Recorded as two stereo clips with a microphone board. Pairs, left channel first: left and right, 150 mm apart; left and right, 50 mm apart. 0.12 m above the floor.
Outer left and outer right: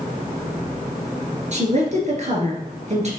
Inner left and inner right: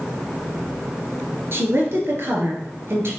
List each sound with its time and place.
1.5 s a woman speaking: 50° right (ahead or behind), 2 m